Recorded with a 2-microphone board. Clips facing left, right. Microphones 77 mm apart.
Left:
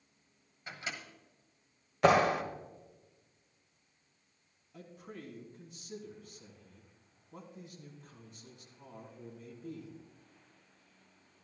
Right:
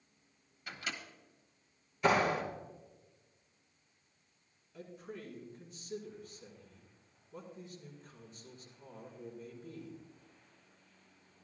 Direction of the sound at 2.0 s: 65° left (ahead or behind).